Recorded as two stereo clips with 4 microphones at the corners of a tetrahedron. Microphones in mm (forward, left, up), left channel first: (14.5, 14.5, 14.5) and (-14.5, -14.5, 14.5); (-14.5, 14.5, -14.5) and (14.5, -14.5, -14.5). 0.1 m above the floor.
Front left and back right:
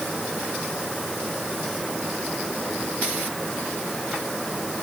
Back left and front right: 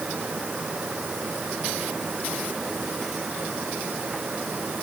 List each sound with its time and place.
Only background noise.